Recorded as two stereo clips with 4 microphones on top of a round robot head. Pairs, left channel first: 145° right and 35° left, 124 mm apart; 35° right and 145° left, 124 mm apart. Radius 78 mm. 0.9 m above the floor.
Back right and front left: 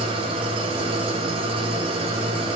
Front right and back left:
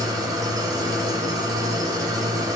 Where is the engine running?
85° left, 1.7 m.